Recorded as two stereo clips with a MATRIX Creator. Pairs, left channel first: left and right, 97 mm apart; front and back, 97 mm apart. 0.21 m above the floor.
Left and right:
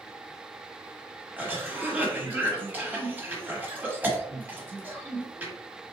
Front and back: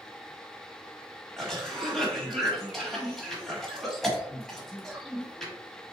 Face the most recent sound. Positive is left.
turn(degrees=-80)